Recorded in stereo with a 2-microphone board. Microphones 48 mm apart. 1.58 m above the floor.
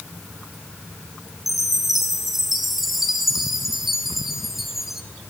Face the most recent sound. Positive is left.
turn(degrees=-5)  # may be behind; listen again after turning